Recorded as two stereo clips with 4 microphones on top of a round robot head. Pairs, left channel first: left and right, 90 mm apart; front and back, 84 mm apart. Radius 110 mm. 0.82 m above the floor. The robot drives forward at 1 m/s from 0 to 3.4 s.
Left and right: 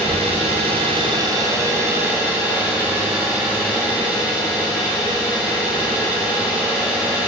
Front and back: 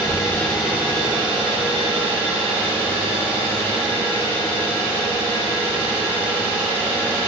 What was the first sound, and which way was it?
An engine running, 55° right.